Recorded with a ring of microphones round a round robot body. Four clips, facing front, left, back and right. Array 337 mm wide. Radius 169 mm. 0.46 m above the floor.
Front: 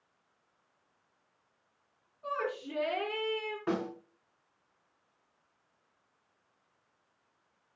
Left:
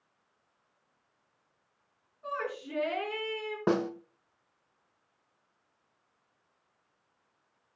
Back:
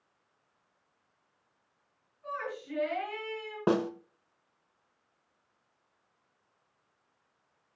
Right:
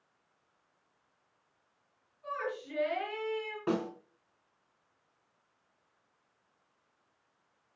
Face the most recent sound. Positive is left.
turn(degrees=145)